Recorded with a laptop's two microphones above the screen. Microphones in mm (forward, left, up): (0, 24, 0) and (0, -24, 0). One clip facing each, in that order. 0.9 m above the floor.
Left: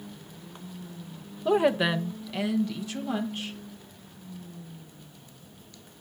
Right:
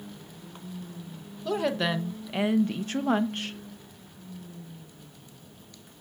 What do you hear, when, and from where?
1.4 s a woman speaking: 25° left (ahead or behind), 0.8 m; by 3.6 s 65° right (ahead or behind), 1.0 m